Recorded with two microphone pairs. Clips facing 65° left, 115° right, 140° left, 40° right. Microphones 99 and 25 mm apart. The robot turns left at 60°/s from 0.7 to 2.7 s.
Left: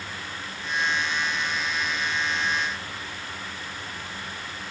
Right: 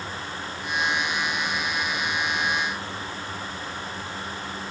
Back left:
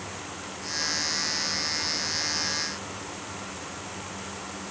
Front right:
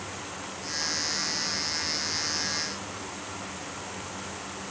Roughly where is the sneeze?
I don't hear a sneeze.